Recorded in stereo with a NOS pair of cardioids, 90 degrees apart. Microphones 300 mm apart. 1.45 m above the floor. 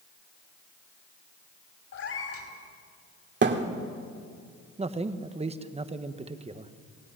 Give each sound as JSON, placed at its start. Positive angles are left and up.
{"t": 1.9, "sound": "a cat meowing", "azimuth_deg": 50, "distance_m": 5.0}
{"t": 3.4, "sound": "a thud", "azimuth_deg": -40, "distance_m": 2.5}
{"t": 4.8, "sound": "a man speaking", "azimuth_deg": -20, "distance_m": 1.3}